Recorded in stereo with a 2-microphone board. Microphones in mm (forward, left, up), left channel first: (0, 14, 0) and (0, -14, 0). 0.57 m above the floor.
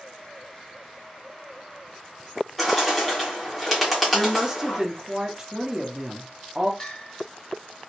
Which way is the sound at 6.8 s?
30° left (ahead or behind).